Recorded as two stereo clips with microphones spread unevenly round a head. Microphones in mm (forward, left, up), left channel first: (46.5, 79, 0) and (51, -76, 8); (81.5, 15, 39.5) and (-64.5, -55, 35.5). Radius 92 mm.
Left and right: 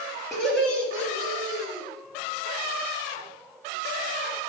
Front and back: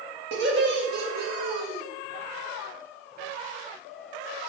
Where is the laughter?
175° right, 1.7 m; by 1.8 s 160° left, 2.5 m.